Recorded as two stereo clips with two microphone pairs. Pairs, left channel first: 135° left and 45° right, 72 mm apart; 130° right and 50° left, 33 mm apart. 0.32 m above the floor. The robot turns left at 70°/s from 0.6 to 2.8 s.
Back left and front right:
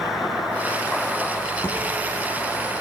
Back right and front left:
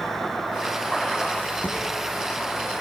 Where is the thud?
165° right, 7.5 m; by 1.8 s 175° right, 7.5 m.